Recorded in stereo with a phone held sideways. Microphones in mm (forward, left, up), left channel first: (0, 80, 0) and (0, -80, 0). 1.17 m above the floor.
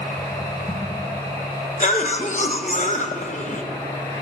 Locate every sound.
0.0 s a machine running: 25° left (ahead or behind), 4 m
1.8 s a cough: 50° left (ahead or behind), 0.8 m